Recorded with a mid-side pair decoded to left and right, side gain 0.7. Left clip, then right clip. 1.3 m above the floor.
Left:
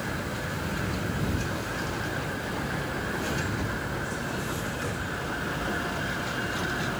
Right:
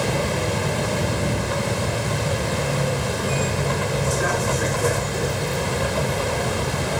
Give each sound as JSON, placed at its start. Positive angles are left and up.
{"t": 0.0, "sound": "a vehicle", "azimuth_deg": -60}